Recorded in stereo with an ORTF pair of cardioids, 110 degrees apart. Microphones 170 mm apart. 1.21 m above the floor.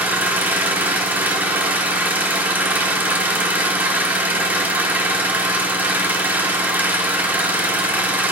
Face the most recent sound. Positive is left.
turn(degrees=-10)